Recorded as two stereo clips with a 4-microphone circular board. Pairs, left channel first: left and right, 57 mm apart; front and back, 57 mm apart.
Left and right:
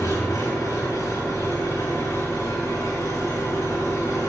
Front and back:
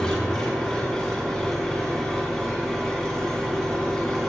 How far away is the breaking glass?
I don't hear breaking glass.